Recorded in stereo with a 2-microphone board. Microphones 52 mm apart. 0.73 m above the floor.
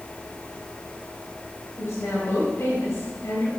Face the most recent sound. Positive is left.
turn(degrees=65)  # may be behind; listen again after turning